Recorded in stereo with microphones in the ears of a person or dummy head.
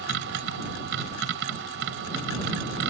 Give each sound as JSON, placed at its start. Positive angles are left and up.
{"t": 0.0, "sound": "a machine running", "side_deg": -75}